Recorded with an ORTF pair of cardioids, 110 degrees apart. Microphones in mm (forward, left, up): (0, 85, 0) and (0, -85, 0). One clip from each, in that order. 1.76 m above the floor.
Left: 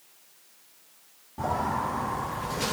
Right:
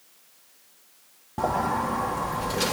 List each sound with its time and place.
1.4 s a sliding door: 55° right, 2 m